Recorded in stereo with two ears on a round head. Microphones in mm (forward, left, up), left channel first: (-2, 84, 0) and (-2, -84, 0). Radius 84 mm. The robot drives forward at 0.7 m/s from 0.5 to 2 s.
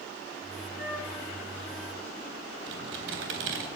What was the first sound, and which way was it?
A flute, 70° right (ahead or behind).